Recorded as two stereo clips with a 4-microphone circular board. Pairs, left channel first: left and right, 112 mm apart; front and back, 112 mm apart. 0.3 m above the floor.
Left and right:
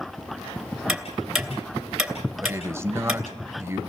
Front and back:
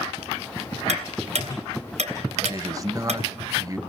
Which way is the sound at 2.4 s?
145° right.